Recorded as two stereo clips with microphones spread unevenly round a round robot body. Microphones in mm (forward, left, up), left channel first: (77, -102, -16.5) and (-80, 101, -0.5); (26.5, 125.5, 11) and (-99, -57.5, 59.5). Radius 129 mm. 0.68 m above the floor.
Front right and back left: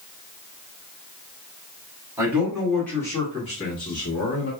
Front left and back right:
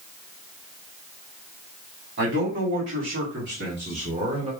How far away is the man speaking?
About 1.8 m.